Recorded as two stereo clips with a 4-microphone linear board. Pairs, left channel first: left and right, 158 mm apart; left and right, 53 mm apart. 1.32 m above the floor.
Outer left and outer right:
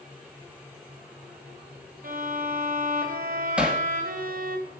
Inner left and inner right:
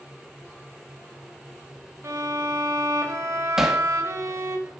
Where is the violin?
65° right (ahead or behind), 2 m.